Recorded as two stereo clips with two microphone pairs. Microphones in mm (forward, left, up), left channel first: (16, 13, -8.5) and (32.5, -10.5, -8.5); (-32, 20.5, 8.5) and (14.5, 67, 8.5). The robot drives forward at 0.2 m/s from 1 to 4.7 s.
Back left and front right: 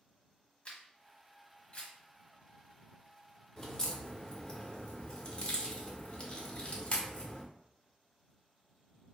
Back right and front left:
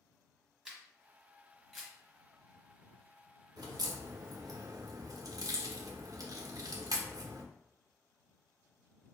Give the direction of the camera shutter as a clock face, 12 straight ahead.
8 o'clock.